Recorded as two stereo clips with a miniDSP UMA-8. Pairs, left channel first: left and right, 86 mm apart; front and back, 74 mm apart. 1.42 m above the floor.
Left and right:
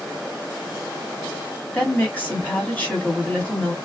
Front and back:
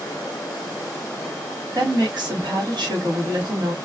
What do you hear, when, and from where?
1.7 s a woman speaking: 160° left, 1.5 m